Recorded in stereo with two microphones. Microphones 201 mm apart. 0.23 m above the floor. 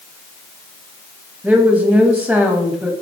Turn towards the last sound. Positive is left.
turn(degrees=-10)  # may be behind; listen again after turning